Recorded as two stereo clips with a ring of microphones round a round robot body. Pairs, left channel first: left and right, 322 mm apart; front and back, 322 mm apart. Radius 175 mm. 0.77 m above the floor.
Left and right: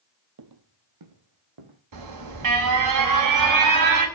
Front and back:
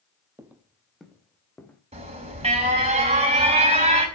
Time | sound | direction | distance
0.4 | footsteps | 100° right | 1.3 m
1.9 | an alarm | 110° right | 4.5 m